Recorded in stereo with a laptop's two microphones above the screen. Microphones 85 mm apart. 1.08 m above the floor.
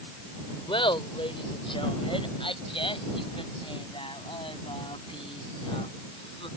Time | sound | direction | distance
0.7 | laughter | 80° left | ?